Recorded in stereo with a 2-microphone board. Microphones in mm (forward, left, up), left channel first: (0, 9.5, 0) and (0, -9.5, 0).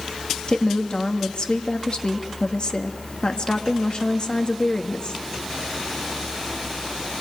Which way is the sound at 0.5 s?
45° left (ahead or behind).